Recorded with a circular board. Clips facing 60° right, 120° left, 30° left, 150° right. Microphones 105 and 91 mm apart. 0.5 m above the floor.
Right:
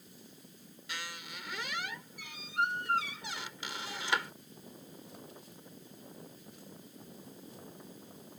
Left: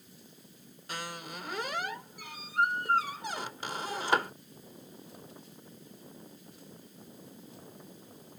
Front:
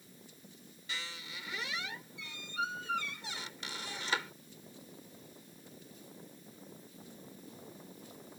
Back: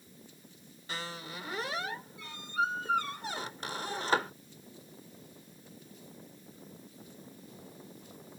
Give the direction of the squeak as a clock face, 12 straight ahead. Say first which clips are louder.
Left 5 dB, back 5 dB; 6 o'clock.